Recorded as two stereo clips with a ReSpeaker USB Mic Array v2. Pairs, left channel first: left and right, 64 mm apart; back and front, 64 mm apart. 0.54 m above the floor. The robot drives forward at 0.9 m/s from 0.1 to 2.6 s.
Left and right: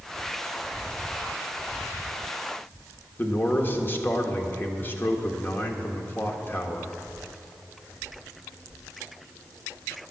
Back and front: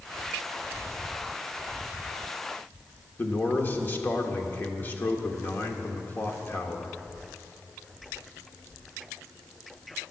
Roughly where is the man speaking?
Behind left.